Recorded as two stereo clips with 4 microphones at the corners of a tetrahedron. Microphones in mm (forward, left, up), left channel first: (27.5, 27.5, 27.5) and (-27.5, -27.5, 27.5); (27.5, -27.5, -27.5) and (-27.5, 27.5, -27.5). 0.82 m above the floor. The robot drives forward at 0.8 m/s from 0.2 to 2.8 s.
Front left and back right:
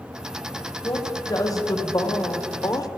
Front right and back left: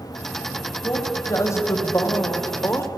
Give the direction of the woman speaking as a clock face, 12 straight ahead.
12 o'clock.